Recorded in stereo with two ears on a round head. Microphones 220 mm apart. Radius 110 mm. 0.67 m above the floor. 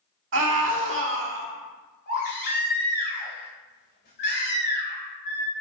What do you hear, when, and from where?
0.3 s a scream: 50° right (ahead or behind), 1.8 m
2.1 s a baby crying: 40° left (ahead or behind), 2.5 m